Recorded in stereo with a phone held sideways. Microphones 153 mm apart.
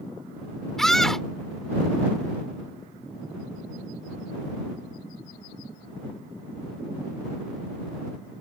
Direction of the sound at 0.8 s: 5° left (ahead or behind).